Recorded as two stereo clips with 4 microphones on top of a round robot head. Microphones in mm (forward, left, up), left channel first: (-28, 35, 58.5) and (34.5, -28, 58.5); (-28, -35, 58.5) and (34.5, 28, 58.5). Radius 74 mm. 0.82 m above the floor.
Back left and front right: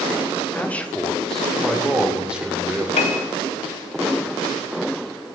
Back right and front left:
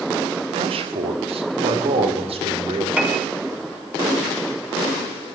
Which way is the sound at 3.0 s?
125° left.